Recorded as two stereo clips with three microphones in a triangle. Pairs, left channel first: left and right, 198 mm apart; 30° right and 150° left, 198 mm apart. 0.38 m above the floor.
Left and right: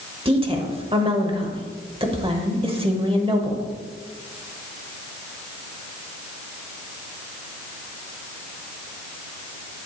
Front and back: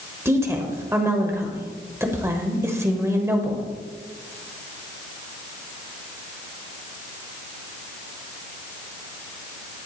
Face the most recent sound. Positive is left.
turn(degrees=-140)